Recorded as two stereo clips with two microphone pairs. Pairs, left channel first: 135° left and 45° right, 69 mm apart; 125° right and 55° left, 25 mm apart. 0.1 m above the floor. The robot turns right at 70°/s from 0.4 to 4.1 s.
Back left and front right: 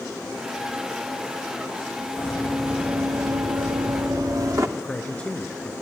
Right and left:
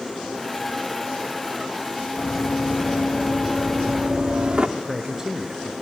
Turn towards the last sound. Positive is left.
turn(degrees=70)